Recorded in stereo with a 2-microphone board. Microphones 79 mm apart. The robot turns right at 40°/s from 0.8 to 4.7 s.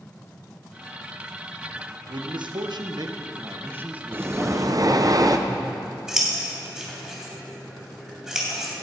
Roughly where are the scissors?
Centre.